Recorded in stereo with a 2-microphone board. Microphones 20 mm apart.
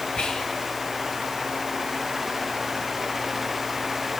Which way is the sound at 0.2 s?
60° left (ahead or behind).